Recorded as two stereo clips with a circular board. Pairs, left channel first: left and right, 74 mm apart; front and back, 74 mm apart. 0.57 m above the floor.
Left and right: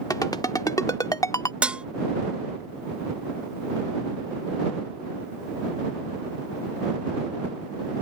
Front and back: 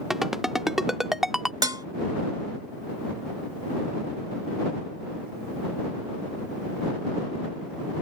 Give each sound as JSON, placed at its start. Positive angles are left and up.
{"t": 0.1, "sound": "a ringtone", "azimuth_deg": 95}
{"t": 1.6, "sound": "dishes clattering", "azimuth_deg": -160}